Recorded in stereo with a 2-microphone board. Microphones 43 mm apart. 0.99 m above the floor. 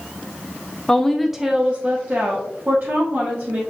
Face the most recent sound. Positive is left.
turn(degrees=-50)  # may be behind; listen again after turning